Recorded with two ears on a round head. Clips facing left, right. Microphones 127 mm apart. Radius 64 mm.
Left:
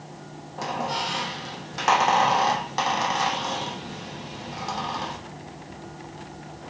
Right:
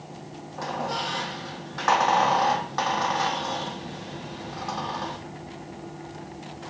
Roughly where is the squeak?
Left.